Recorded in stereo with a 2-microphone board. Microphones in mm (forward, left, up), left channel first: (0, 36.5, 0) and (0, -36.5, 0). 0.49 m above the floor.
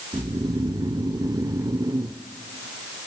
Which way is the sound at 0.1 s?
70° right (ahead or behind).